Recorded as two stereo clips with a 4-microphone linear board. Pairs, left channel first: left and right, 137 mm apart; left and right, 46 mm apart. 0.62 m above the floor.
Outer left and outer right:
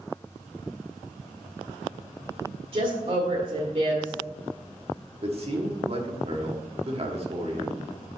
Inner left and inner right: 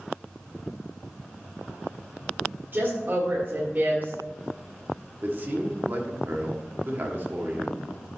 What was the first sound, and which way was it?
A woman speaking, 45° right (ahead or behind).